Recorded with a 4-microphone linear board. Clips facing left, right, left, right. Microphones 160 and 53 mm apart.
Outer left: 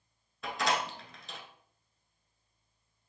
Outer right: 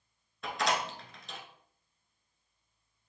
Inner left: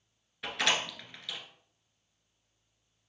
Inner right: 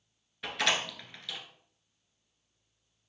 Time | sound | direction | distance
0.4 | a door slam | centre (ahead or behind) | 1.3 m